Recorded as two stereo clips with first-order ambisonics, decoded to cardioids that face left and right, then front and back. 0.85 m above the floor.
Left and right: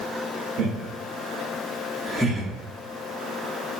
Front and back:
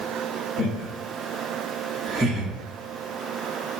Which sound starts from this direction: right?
Laughter, at 0.6 s.